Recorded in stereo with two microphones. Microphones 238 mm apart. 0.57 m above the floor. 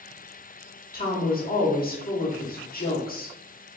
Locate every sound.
0.9 s a woman speaking: 40° left (ahead or behind), 1.1 m